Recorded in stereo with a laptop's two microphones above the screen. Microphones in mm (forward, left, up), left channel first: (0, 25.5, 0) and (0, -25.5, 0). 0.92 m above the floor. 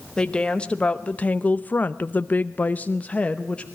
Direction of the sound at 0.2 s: 20° left (ahead or behind).